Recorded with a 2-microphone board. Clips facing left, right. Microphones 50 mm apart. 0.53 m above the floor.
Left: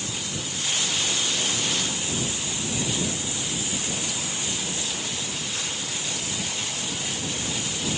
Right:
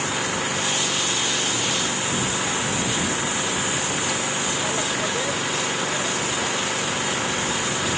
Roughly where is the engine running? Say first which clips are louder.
Right 9 dB; right.